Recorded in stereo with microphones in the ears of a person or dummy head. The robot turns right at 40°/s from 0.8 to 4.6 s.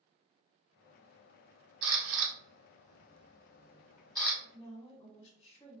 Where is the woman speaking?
15° left (ahead or behind), 0.7 m; by 5.8 s 25° left (ahead or behind), 0.7 m.